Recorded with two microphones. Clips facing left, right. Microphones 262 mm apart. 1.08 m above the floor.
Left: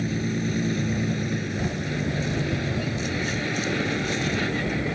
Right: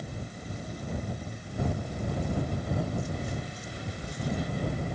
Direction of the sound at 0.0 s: 90° left.